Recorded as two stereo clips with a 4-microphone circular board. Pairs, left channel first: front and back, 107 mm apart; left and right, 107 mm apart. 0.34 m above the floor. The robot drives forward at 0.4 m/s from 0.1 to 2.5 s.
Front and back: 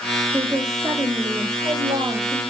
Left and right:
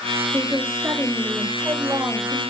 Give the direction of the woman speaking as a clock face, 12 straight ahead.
5 o'clock.